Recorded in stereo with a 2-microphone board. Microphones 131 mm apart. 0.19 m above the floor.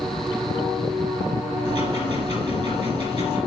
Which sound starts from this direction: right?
Ticking, at 1.6 s.